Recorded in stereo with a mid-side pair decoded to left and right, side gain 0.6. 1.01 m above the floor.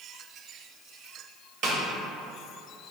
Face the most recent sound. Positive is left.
turn(degrees=-60)